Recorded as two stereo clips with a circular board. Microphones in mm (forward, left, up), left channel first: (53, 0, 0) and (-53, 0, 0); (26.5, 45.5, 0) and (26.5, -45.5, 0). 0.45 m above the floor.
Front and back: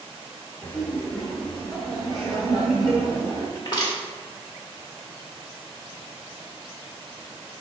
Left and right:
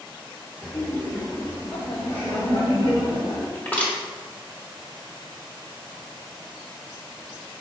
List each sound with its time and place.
0.6 s laughter: 10° left, 0.8 m; by 3.5 s 95° left, 3.5 m
3.5 s crushing: 30° left, 1.3 m